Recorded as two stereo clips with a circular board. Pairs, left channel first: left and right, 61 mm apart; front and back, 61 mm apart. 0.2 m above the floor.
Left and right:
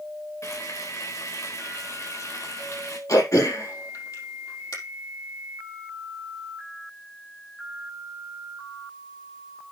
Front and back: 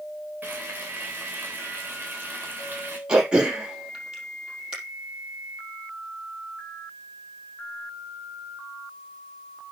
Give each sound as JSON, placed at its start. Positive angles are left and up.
{"t": 0.4, "sound": "frying", "azimuth_deg": 120, "distance_m": 4.0}
{"t": 3.1, "sound": "throat clearing", "azimuth_deg": 105, "distance_m": 4.0}